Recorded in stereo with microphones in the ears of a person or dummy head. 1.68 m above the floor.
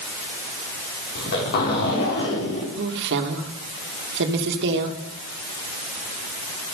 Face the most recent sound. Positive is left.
turn(degrees=-65)  # may be behind; listen again after turning